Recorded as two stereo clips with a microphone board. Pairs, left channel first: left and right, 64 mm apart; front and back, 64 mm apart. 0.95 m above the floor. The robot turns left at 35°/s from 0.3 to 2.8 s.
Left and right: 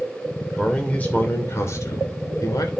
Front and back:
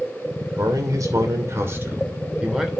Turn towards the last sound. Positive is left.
turn(degrees=90)